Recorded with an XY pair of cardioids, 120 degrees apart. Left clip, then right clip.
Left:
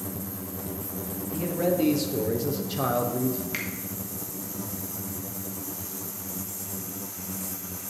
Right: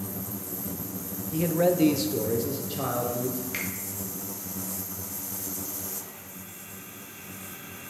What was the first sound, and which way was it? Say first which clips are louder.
A man speaking: right 2 dB; 35° right.